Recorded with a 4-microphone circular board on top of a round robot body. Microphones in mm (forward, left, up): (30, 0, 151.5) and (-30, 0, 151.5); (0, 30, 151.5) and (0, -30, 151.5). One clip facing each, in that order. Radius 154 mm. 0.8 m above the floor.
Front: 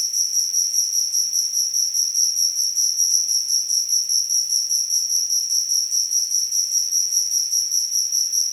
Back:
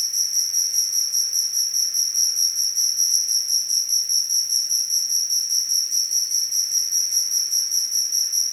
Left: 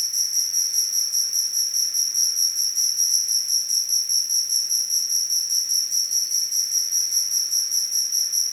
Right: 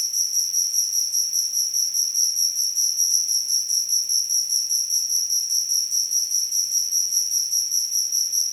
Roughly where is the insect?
Behind left.